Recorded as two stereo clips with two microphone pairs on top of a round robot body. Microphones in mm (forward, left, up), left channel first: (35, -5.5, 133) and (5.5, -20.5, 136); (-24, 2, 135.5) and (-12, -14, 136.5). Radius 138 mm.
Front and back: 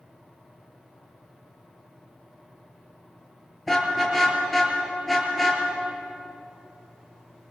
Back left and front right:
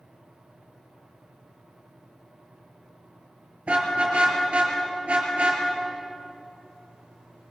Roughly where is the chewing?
No chewing in this recording.